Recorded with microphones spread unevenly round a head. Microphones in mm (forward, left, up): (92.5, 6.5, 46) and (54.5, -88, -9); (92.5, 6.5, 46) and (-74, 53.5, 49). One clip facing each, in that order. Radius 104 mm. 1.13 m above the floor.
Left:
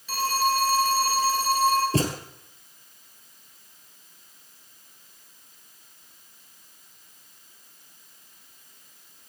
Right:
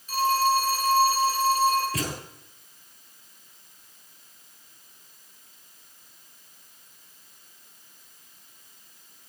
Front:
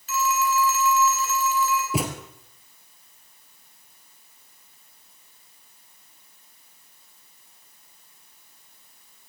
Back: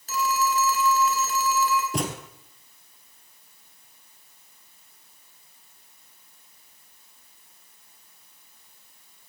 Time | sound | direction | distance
0.1 | a phone ringing | 110° left | 4 m
1.9 | a thud | 65° left | 1.9 m